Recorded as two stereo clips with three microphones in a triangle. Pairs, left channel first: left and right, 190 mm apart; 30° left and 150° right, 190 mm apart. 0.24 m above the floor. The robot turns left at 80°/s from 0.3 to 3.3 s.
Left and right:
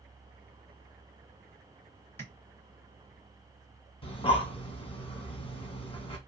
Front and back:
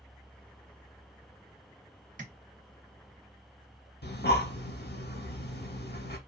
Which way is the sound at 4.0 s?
35° left.